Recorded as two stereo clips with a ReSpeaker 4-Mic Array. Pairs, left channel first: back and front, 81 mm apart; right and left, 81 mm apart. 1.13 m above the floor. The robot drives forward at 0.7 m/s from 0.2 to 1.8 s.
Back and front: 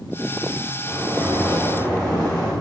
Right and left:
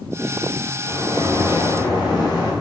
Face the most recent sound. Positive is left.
turn(degrees=-105)